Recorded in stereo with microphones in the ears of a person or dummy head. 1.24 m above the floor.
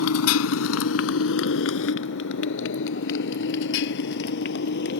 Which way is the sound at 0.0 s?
75° left (ahead or behind).